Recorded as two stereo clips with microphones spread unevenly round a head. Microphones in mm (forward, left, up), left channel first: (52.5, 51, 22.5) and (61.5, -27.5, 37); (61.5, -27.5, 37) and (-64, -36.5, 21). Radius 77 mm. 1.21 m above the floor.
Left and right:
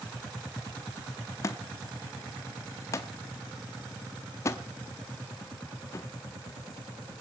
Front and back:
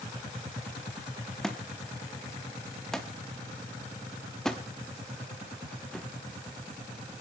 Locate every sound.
1.4 s a thud: 70° left, 0.7 m